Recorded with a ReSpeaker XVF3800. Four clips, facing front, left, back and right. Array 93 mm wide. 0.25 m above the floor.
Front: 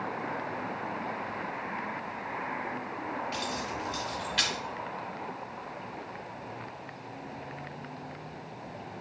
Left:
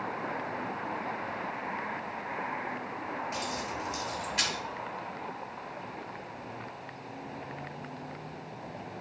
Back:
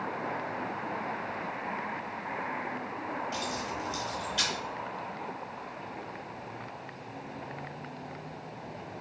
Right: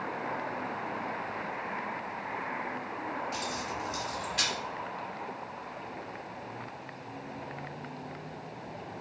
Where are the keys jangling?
5° left, 1.2 m.